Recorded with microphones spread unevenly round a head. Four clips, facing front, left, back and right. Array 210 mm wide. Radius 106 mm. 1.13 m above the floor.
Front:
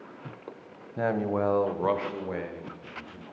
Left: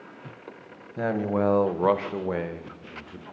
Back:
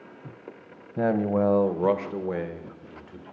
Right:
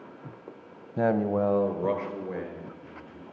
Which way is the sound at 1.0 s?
160° right.